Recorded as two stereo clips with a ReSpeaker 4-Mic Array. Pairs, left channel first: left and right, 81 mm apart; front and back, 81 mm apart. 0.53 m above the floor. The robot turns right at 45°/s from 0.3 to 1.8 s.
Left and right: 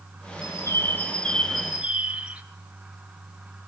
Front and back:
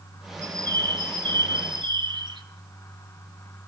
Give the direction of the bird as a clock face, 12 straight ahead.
8 o'clock.